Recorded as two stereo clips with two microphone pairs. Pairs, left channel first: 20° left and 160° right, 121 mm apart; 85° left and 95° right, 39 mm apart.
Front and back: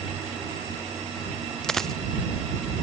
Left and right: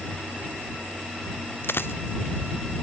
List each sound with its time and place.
1.6 s a dropped coin: 105° left